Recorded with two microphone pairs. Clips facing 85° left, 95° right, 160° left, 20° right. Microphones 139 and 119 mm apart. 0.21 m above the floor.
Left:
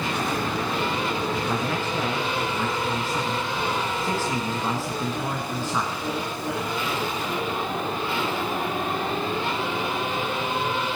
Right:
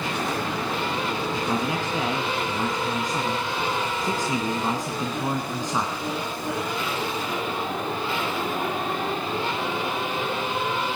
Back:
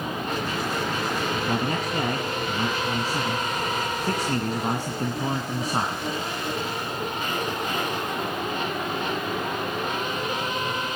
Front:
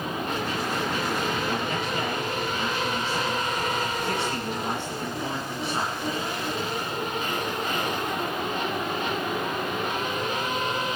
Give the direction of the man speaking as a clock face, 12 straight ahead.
5 o'clock.